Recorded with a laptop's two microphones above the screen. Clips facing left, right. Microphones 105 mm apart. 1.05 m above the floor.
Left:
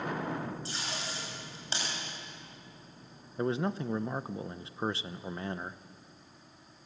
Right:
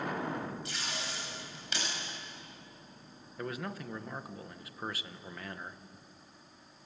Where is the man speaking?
25° left (ahead or behind), 0.8 m.